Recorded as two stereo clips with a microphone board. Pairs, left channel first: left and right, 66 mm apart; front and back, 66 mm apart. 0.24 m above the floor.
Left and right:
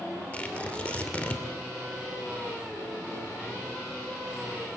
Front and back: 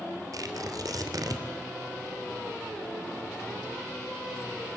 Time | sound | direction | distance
0.3 | tearing paper | 155° left | 2.5 m